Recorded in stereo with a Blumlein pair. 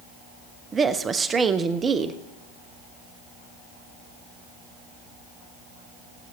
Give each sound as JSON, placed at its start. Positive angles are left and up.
{"t": 0.7, "sound": "a woman speaking", "azimuth_deg": -20, "distance_m": 0.8}